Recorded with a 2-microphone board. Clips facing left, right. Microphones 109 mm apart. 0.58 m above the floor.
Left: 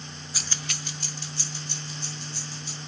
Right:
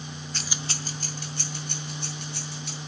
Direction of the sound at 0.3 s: 10° left (ahead or behind).